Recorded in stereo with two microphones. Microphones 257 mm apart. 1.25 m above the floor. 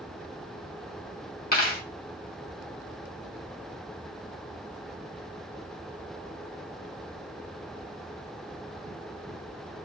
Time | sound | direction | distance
1.5 | a dropped coin | 35° left (ahead or behind) | 1.0 m